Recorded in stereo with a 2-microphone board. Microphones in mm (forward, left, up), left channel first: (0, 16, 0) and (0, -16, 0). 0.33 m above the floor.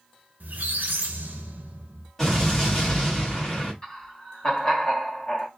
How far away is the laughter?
About 1.0 m.